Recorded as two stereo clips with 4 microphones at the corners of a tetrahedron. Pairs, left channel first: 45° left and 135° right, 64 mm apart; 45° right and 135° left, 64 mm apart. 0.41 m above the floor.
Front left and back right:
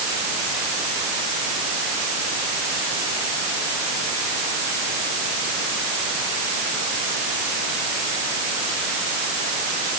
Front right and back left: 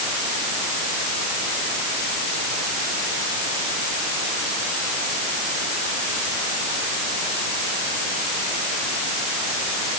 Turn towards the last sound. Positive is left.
No sound to turn to.